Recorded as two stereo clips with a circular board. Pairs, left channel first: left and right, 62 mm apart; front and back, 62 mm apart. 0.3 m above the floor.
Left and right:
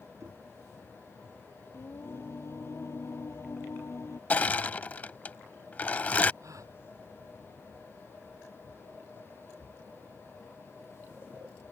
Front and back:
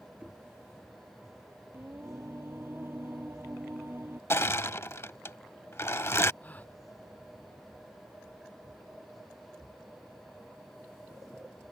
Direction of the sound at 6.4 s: 60° right.